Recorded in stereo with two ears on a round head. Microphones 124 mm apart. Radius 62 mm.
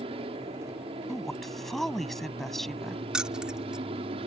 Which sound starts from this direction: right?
An aircraft, at 0.0 s.